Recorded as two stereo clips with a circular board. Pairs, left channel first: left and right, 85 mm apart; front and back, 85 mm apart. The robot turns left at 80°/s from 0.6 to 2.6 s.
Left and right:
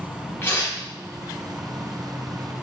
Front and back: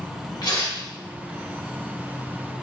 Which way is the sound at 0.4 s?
30° left.